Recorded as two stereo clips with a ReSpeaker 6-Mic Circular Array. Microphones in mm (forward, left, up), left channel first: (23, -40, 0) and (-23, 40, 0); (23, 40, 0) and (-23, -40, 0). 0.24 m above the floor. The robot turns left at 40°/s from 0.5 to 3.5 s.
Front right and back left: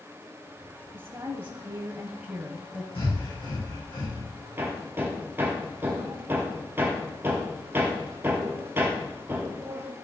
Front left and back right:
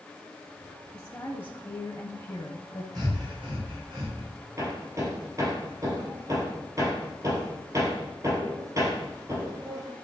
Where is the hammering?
175° right, 2 m.